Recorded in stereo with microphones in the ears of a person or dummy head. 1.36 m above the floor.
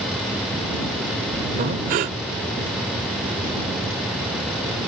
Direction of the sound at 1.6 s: 35° right (ahead or behind).